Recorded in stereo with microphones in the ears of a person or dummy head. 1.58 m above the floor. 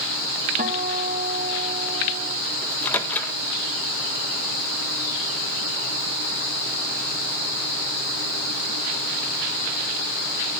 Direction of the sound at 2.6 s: 15° left (ahead or behind).